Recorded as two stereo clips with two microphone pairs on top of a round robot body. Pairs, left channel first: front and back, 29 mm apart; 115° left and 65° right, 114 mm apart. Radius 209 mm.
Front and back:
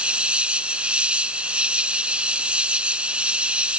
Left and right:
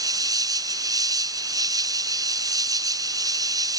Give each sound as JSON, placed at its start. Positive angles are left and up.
{"t": 0.0, "sound": "an insect", "azimuth_deg": -125}